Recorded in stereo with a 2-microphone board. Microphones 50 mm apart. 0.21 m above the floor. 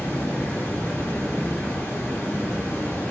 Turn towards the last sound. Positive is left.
turn(degrees=65)  # may be behind; listen again after turning